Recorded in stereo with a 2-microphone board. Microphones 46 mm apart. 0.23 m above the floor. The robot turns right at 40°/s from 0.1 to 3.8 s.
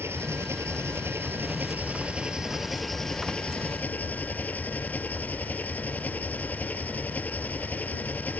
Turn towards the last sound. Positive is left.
turn(degrees=40)